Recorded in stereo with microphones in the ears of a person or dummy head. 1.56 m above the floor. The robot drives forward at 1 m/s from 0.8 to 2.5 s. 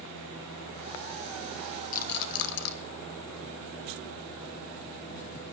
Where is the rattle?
40° left (ahead or behind), 0.7 m; by 2.7 s 60° left (ahead or behind), 0.5 m.